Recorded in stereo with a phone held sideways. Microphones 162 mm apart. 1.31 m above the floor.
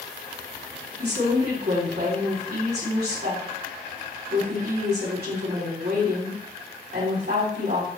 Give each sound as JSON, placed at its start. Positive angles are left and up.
{"t": 1.0, "sound": "a woman speaking", "side_deg": -70, "distance_m": 3.5}